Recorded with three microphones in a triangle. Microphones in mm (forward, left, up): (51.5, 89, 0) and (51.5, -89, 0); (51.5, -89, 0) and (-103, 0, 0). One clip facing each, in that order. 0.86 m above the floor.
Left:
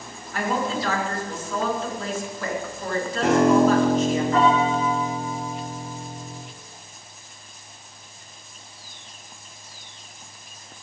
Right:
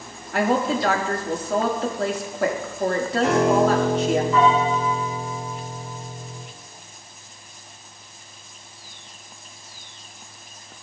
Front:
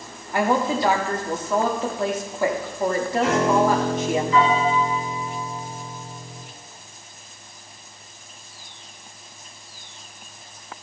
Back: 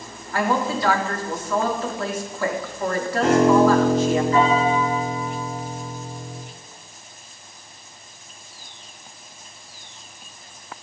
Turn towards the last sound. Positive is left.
turn(degrees=110)